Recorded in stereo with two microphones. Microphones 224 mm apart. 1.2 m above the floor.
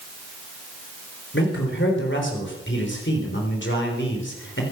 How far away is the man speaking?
About 3.5 m.